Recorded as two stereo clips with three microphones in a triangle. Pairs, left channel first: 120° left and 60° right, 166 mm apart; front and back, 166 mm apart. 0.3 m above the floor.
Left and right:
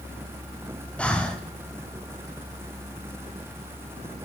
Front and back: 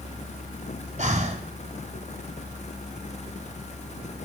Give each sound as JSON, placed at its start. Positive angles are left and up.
{"t": 1.0, "sound": "breathing", "azimuth_deg": -160, "distance_m": 1.1}